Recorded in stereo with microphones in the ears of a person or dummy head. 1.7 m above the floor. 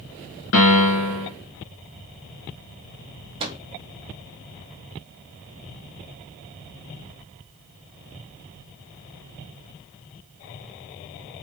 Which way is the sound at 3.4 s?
35° right (ahead or behind).